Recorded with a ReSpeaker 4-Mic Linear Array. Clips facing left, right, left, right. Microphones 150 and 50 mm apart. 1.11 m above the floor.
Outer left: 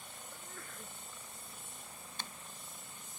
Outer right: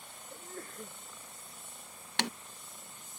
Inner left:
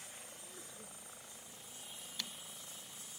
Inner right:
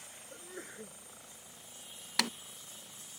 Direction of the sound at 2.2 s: 80° right.